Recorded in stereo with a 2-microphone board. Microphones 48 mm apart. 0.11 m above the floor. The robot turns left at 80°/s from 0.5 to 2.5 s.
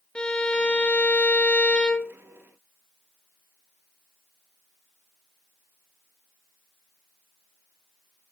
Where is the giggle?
No giggle in this recording.